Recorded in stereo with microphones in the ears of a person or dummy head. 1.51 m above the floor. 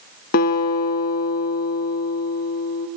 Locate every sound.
0.3 s a guitar: 50° left (ahead or behind), 2.5 m